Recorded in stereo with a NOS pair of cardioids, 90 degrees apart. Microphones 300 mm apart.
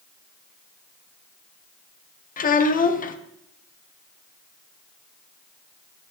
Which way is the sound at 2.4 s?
30° left.